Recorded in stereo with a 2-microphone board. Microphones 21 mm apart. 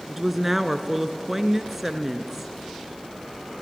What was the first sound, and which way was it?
A woman speaking, 15° right (ahead or behind).